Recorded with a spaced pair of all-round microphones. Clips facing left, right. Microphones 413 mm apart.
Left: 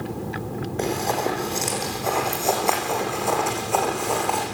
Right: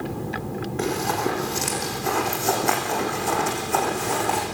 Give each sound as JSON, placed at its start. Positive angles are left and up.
{"t": 0.8, "sound": "running footsteps", "side_deg": -20, "distance_m": 5.5}